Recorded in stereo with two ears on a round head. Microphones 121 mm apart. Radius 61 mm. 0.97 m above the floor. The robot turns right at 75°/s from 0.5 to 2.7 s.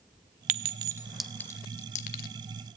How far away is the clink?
About 0.9 m.